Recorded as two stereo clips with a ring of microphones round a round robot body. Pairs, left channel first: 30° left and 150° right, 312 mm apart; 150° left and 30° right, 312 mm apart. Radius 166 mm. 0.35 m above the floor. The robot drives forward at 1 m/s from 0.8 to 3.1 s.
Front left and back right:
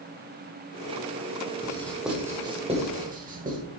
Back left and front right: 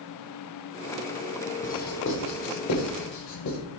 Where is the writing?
100° left, 1.5 m; by 3.6 s 150° left, 2 m.